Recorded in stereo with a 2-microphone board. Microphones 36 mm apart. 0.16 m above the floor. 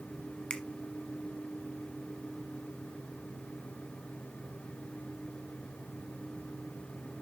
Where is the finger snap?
25° left (ahead or behind), 1.2 m.